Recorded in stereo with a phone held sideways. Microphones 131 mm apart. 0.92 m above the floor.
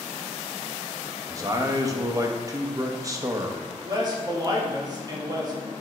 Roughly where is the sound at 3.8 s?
Right.